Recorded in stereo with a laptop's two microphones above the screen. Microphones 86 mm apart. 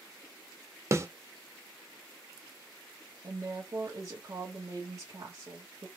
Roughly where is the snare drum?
Right.